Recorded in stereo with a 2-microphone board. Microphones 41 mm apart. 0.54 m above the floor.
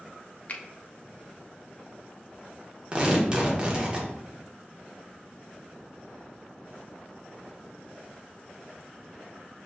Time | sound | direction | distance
0.5 | a finger snap | 40° left (ahead or behind) | 0.5 m
2.9 | tearing paper | 25° right (ahead or behind) | 0.8 m